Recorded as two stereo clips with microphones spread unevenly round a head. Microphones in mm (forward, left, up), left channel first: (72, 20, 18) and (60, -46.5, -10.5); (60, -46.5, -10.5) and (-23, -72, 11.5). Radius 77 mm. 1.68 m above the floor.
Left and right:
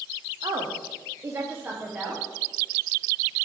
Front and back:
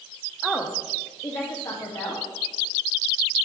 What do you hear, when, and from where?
0.4 s a woman speaking: 80° right, 0.9 m; by 2.2 s 20° right, 1.8 m